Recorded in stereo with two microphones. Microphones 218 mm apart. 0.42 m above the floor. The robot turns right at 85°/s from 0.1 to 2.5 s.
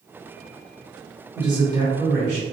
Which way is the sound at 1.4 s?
20° right (ahead or behind).